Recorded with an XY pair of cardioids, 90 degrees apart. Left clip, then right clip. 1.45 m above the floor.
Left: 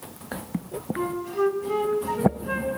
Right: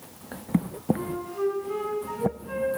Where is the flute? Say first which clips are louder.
Left 4 dB; 70° left, 2.5 m.